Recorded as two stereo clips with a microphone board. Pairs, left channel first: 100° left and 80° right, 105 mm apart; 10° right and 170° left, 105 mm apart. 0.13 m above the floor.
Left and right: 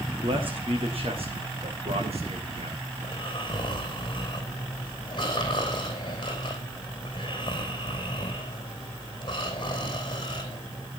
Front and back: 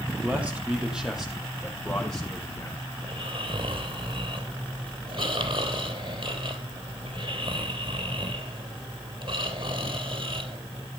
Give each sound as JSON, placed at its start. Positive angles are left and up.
{"t": 0.2, "sound": "a man speaking", "azimuth_deg": -115, "distance_m": 5.5}
{"t": 3.0, "sound": "snoring", "azimuth_deg": 145, "distance_m": 3.0}